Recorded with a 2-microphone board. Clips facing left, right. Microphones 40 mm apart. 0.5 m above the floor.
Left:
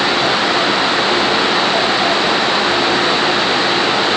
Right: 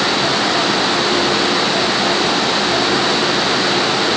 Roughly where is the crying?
No crying in this recording.